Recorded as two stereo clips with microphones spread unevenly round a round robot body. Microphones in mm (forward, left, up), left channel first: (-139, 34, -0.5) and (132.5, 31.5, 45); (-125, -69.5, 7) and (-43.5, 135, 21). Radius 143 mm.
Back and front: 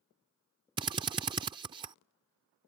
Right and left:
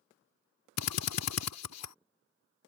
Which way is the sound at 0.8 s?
70° right.